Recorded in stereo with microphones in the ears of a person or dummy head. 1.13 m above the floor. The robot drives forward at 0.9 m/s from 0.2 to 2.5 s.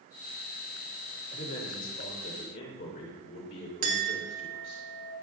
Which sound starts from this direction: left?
A man speaking, at 1.3 s.